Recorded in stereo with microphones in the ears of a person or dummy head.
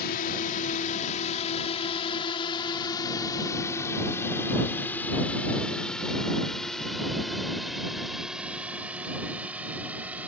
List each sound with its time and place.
0.0 s a drone: 55° left (ahead or behind); by 10.3 s 5° right (ahead or behind)